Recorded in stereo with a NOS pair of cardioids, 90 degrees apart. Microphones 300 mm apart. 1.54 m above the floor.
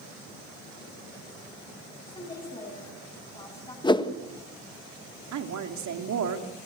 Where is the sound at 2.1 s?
15° left, 10 m.